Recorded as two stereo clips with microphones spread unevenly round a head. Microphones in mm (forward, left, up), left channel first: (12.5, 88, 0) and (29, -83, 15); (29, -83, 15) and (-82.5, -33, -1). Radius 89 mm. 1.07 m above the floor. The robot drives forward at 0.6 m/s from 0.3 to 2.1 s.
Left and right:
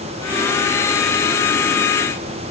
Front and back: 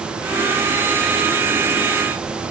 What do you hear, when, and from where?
Only background noise.